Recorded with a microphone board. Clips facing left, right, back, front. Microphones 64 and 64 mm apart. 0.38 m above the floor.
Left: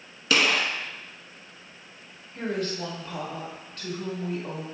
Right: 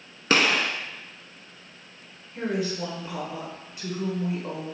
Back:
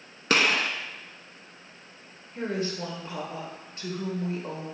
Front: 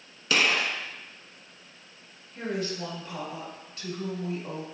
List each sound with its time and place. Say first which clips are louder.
0.3 s a gunshot: right 1 dB, back 1 dB; 140° right, 0.6 m
2.4 s a woman speaking: right 2 dB, back 1 dB; 155° right, 1.2 m